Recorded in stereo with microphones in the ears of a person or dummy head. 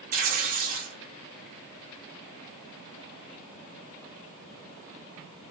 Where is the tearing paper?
40° right (ahead or behind), 1.0 m.